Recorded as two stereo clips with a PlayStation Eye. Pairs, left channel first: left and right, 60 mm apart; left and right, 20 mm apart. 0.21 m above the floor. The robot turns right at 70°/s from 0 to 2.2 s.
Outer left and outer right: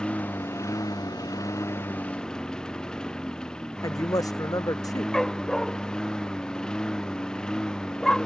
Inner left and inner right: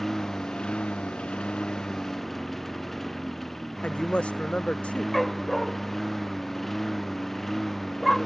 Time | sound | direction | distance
0.0 | a lawn mower | 10° left | ?
3.8 | a woman speaking | 85° left | ?
5.1 | a dog barking | 5° left (ahead or behind) | ?